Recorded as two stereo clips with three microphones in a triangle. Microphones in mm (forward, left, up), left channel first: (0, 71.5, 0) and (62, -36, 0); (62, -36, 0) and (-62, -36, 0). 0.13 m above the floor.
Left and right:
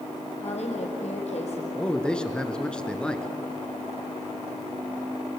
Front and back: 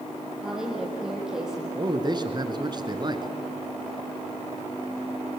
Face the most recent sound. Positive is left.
turn(degrees=-160)